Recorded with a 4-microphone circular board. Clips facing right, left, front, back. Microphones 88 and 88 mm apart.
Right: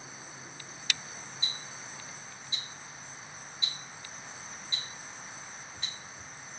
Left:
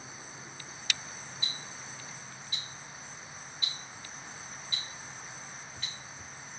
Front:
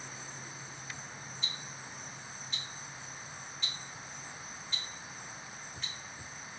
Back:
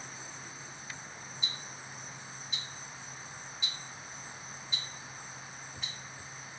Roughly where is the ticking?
Right.